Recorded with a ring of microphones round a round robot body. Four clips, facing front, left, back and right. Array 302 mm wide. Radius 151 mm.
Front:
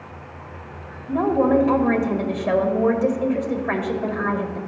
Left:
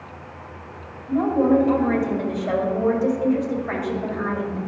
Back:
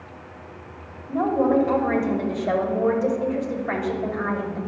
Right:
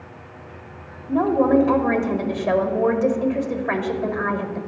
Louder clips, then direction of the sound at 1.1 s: Right 1 dB, front 2 dB; 45° right.